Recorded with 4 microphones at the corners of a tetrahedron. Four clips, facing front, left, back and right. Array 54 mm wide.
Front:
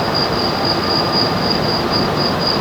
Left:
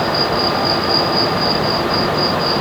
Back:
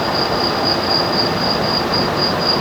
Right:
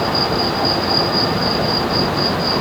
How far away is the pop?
I don't hear a pop.